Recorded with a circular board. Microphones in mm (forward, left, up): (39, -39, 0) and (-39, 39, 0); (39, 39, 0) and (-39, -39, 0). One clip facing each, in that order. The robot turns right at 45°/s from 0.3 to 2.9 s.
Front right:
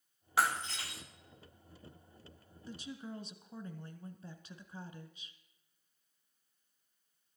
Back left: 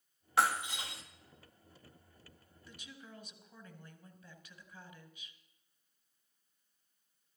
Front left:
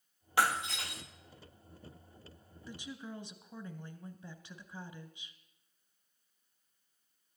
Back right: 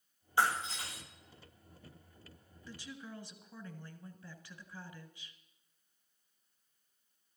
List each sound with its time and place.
0.4 s breaking glass: 45° left, 1.7 m; by 1.0 s 75° left, 1.7 m
2.6 s a woman speaking: 20° right, 1.5 m; by 5.4 s 10° right, 1.5 m